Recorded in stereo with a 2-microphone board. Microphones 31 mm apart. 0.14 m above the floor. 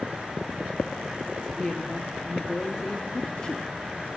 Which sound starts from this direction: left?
A woman speaking, at 1.6 s.